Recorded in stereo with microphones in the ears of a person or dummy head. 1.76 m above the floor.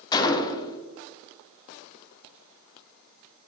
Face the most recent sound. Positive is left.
turn(degrees=20)  # may be behind; listen again after turning